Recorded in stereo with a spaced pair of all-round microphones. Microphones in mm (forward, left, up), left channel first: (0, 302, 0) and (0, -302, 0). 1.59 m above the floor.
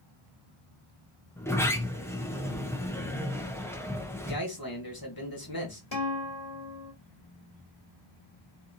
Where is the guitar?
35° left (ahead or behind), 1.6 m.